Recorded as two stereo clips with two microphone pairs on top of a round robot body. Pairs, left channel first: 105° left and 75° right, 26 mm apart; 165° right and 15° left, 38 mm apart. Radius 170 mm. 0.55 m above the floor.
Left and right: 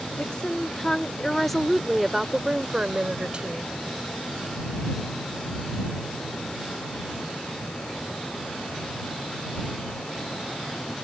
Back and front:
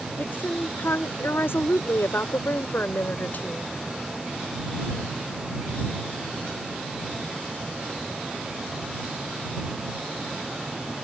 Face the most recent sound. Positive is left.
turn(degrees=-120)